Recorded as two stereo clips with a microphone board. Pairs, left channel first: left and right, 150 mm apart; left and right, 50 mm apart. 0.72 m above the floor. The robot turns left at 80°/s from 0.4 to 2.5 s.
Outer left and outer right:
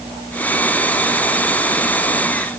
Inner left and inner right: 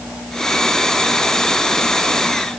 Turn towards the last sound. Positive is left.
No sound to turn to.